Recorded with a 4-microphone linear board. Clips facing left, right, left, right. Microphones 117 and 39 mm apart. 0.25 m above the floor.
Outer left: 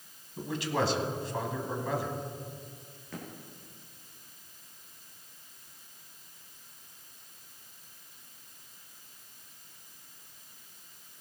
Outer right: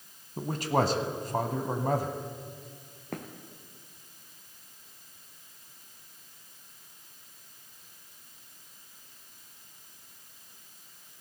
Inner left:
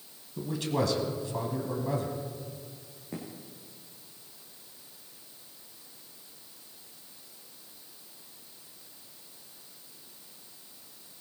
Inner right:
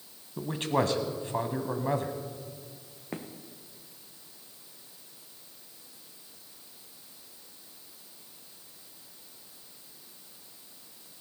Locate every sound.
0.4 s a man speaking: 45° right (ahead or behind), 1.3 m
3.1 s footsteps: 55° right (ahead or behind), 1.9 m